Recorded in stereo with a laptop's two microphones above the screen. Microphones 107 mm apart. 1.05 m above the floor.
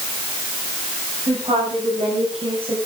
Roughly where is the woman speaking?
Right.